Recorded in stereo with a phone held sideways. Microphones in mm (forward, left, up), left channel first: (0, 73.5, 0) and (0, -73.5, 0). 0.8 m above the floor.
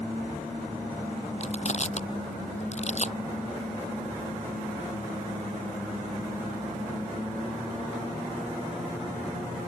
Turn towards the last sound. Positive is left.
turn(degrees=50)  # may be behind; listen again after turning